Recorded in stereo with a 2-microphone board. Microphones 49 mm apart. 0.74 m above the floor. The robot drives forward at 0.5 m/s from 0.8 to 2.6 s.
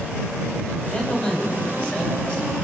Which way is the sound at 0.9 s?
30° left (ahead or behind).